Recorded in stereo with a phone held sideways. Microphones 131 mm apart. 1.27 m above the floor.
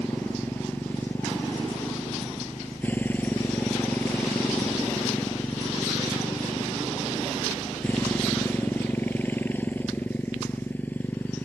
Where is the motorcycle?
15° left (ahead or behind).